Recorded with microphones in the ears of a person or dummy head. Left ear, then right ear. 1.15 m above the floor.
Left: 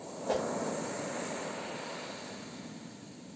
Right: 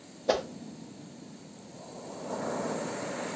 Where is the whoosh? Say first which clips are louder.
Right 4 dB; 55° right (ahead or behind), 0.5 m.